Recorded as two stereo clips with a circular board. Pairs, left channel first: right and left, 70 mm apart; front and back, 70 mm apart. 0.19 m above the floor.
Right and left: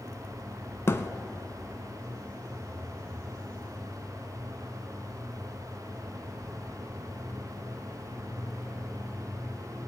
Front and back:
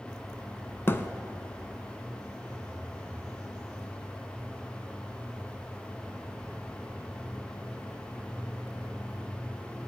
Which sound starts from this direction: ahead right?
A thud, at 0.9 s.